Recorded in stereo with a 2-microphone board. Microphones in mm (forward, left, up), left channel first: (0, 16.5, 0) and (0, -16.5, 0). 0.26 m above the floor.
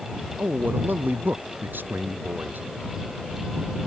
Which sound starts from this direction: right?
A man speaking, at 0.4 s.